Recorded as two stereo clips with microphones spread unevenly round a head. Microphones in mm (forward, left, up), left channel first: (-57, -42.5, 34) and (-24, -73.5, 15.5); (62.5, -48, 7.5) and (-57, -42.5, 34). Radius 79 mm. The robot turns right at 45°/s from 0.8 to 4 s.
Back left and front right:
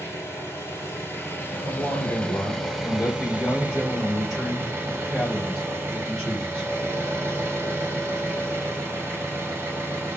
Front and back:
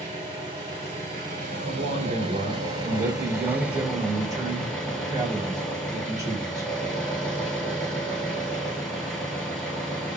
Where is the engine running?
125° left, 1.9 m; by 10.2 s 90° right, 1.9 m.